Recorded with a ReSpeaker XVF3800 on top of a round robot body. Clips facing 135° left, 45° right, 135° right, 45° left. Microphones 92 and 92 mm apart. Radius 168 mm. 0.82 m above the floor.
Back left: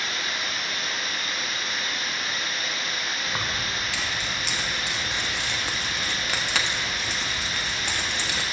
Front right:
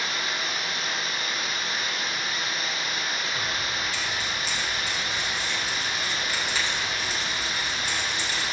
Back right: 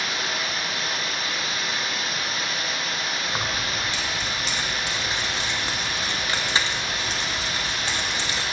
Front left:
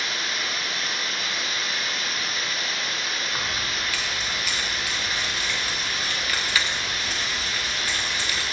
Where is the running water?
110° right, 4 m.